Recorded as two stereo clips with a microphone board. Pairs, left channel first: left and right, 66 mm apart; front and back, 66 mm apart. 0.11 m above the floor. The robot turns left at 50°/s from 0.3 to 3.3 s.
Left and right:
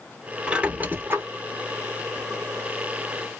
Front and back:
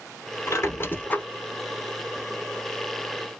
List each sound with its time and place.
0.5 s a squeak: 20° right, 0.6 m; by 1.2 s 55° right, 0.6 m